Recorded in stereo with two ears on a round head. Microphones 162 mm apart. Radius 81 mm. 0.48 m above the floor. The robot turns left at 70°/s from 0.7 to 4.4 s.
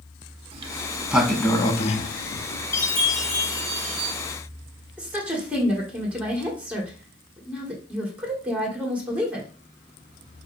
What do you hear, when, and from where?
0.5 s a sliding door: 30° right (ahead or behind), 0.5 m; by 2.6 s 60° left (ahead or behind), 0.5 m
2.7 s a chime: 35° left, 1.2 m; by 4.2 s 65° right, 1.2 m
5.0 s a woman speaking: 10° right (ahead or behind), 1.5 m